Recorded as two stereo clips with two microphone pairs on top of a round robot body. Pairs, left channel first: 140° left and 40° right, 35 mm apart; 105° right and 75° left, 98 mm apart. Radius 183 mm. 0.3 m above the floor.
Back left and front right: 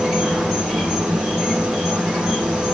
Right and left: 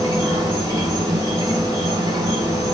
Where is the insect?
35° left, 1.2 m.